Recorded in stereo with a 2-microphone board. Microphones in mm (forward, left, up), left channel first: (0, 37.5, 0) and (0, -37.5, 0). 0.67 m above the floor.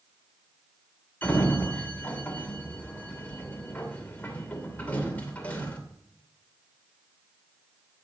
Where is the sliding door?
20° left (ahead or behind), 2.5 m.